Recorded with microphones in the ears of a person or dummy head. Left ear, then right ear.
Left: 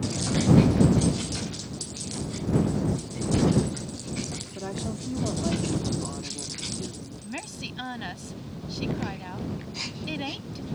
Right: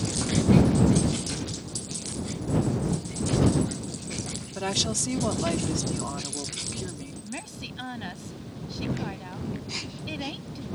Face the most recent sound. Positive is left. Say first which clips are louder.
# left 3 dB
turn(degrees=10)  # may be behind; listen again after turning